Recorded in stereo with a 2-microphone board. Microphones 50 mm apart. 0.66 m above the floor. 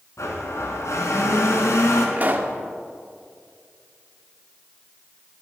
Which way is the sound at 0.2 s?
85° left.